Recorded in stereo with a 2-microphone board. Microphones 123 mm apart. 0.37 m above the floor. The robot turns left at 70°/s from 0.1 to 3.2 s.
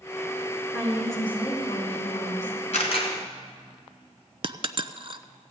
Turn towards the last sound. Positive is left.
turn(degrees=-45)  # may be behind; listen again after turning